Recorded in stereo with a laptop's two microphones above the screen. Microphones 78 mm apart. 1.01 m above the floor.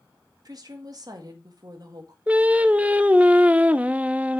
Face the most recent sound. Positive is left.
turn(degrees=-15)  # may be behind; listen again after turning